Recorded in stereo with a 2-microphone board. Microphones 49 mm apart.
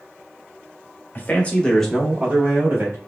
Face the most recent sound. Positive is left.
turn(degrees=-45)  # may be behind; listen again after turning